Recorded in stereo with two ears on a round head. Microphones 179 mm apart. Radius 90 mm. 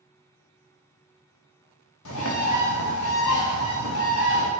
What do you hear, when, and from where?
2.0 s a bird: 80° left, 0.6 m